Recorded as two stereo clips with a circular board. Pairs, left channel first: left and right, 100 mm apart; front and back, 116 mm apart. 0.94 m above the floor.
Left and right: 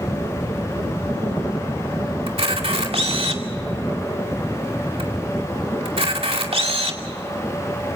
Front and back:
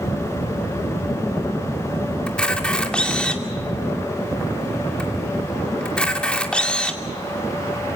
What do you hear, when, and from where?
2.3 s a camera shutter: 80° right, 2.5 m